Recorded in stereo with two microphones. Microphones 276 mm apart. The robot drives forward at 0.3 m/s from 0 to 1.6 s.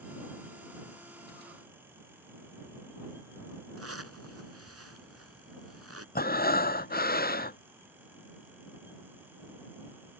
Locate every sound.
3.8 s a zipper: 55° right (ahead or behind)
6.2 s breathing: 35° left (ahead or behind)